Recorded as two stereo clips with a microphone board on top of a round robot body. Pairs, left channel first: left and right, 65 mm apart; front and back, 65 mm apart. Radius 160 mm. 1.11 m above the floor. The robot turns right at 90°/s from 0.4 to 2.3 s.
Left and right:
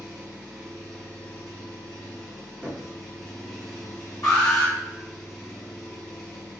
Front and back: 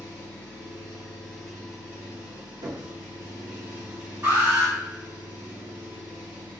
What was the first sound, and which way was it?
An engine running, 35° right.